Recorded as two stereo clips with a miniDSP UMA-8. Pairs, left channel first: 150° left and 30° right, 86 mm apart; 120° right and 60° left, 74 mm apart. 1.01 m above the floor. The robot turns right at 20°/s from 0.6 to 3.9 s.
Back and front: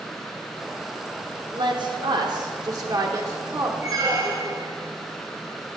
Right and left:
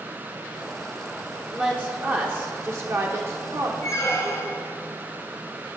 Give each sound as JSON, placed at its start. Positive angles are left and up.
{"t": 1.5, "sound": "a woman speaking", "azimuth_deg": -15, "distance_m": 0.6}
{"t": 3.8, "sound": "a squeak", "azimuth_deg": -75, "distance_m": 1.5}